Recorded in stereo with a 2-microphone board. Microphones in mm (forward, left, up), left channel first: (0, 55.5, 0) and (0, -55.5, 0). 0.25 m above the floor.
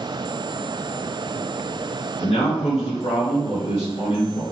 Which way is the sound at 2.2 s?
65° left (ahead or behind).